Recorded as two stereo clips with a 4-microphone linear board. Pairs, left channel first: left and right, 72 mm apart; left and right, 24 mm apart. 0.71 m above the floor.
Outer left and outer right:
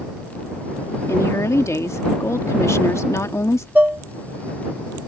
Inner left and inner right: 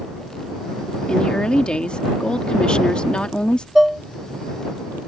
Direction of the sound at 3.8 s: 20° right (ahead or behind).